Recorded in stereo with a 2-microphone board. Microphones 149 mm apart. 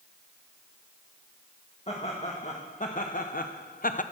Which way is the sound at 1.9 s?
45° left (ahead or behind).